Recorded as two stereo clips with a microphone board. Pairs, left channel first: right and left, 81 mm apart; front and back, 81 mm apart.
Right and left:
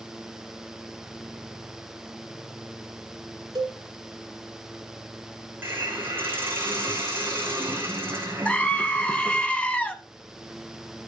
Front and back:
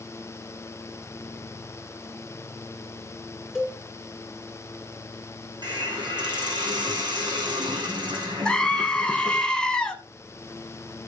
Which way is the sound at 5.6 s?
155° left.